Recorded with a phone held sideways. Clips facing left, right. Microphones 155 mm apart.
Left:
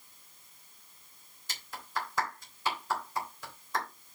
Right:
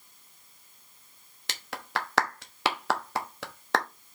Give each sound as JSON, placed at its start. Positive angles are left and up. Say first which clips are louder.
{"t": 1.5, "sound": "a clap", "louder": "right 4 dB", "side_deg": -80, "distance_m": 1.0}